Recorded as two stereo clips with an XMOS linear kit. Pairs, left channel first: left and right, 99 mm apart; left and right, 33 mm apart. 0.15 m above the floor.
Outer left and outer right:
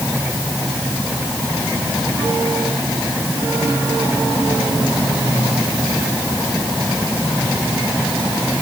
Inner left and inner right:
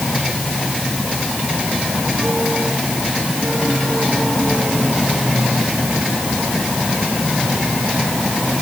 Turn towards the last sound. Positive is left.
No sound to turn to.